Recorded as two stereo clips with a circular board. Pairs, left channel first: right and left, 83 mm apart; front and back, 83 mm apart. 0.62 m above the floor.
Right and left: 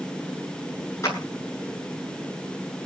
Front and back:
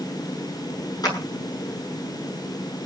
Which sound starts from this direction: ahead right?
A clap, at 1.0 s.